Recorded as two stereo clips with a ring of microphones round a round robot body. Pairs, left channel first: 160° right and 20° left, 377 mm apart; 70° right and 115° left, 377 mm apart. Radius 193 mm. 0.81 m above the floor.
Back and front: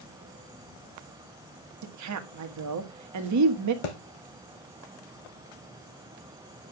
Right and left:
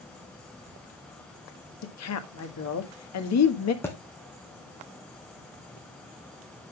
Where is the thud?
150° right, 2.5 m.